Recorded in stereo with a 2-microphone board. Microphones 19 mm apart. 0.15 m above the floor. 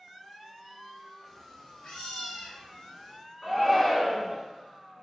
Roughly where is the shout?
Centre.